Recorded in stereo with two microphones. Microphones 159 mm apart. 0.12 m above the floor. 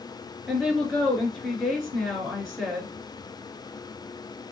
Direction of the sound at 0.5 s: Centre (ahead or behind).